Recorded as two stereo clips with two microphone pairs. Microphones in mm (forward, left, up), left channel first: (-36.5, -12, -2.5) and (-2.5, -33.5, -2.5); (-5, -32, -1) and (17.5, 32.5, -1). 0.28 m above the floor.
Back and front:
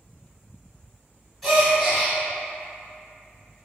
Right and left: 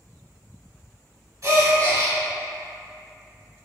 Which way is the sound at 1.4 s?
65° left.